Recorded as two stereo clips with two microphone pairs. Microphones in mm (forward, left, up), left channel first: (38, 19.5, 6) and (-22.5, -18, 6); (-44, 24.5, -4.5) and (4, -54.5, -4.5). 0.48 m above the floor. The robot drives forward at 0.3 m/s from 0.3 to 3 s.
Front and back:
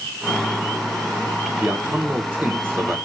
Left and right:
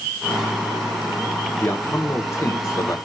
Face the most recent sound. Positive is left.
turn(degrees=170)